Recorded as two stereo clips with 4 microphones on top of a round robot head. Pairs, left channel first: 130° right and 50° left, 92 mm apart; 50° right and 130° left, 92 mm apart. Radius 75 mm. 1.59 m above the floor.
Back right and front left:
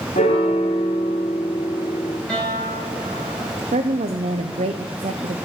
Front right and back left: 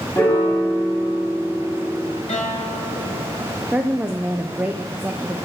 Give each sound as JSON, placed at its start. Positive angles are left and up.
{"t": 0.1, "sound": "a piano", "azimuth_deg": -125, "distance_m": 2.0}
{"t": 2.3, "sound": "a guitar", "azimuth_deg": -45, "distance_m": 5.0}
{"t": 3.7, "sound": "a woman speaking", "azimuth_deg": 50, "distance_m": 0.6}